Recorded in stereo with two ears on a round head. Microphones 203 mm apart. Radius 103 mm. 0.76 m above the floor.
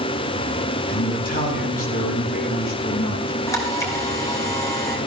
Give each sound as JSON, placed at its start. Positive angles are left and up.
{"t": 0.9, "sound": "a man speaking", "side_deg": 40, "distance_m": 5.0}
{"t": 3.5, "sound": "a camera shutter", "side_deg": 15, "distance_m": 3.5}